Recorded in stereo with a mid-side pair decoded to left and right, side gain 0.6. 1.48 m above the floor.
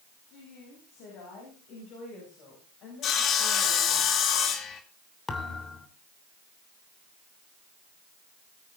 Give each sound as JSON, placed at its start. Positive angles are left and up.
{"t": 0.3, "sound": "a woman speaking", "azimuth_deg": 60, "distance_m": 10.0}
{"t": 3.0, "sound": "sawing", "azimuth_deg": 50, "distance_m": 2.5}
{"t": 5.3, "sound": "a thud", "azimuth_deg": 30, "distance_m": 3.0}